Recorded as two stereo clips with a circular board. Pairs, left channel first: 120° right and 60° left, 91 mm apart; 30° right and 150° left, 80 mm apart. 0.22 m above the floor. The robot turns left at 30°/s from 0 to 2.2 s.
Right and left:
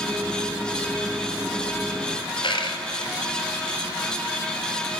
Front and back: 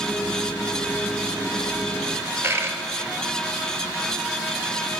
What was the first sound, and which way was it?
A dropped coin, 150° right.